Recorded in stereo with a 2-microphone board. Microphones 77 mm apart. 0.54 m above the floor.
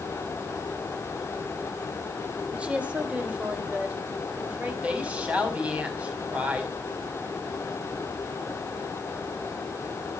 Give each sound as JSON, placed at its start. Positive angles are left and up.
{"t": 2.5, "sound": "a woman speaking", "side_deg": -15, "distance_m": 2.0}
{"t": 4.8, "sound": "a woman speaking", "side_deg": -15, "distance_m": 4.5}